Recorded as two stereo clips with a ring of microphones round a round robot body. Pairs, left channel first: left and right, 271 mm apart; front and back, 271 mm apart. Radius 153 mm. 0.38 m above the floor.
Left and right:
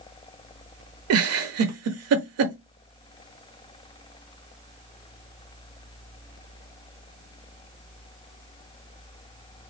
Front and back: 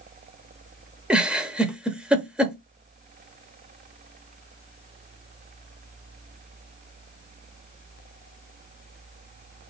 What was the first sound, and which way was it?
A giggle, 95° right.